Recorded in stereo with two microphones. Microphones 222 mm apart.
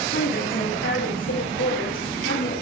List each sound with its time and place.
0.1 s a woman speaking: 65° left (ahead or behind), 7.5 m; by 2.5 s 75° left (ahead or behind), 7.5 m